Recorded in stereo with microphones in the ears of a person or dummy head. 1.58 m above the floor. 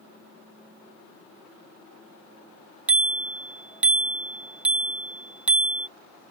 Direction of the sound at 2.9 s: 5° right (ahead or behind).